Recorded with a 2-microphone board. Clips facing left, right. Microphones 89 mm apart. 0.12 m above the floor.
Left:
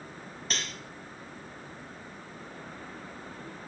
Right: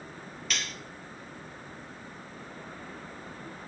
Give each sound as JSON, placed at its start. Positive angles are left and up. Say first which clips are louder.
{"t": 0.5, "sound": "cutlery clinking", "louder": "even", "side_deg": 35, "distance_m": 2.0}